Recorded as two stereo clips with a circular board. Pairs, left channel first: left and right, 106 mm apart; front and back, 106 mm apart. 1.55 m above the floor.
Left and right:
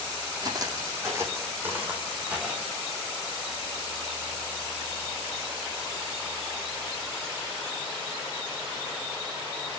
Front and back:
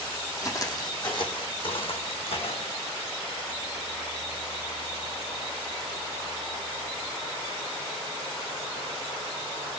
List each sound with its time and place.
0.4 s footsteps: 50° right, 2.5 m; by 2.8 s 10° right, 4.5 m